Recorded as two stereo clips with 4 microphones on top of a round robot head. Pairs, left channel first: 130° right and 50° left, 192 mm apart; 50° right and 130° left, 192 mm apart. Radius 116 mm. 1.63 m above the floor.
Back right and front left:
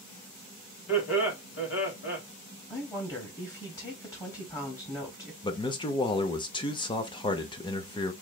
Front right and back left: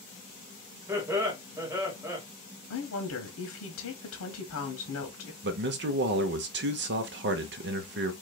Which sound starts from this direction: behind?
A man speaking, at 5.4 s.